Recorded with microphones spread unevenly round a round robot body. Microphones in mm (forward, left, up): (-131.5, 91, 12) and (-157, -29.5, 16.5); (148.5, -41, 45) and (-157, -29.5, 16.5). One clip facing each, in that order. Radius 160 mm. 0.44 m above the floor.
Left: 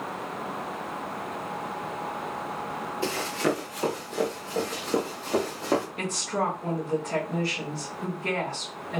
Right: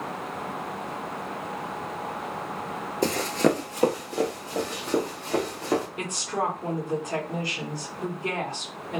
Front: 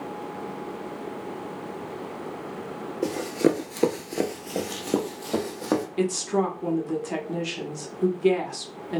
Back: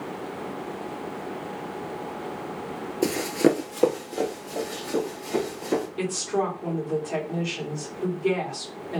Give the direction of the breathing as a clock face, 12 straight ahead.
No breathing in this recording.